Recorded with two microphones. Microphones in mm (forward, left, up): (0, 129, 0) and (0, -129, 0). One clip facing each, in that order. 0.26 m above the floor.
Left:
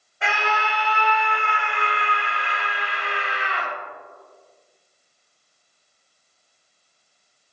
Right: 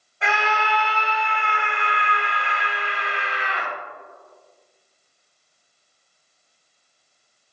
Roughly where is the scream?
Centre.